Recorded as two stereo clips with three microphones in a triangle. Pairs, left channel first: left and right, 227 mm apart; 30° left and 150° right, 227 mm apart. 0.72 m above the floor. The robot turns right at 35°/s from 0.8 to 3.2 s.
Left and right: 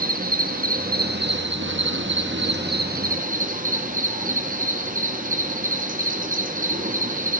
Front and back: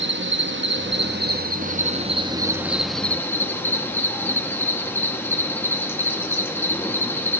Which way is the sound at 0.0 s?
135° right.